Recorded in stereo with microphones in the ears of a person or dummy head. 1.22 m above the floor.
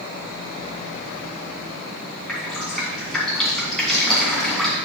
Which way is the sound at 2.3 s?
Centre (ahead or behind).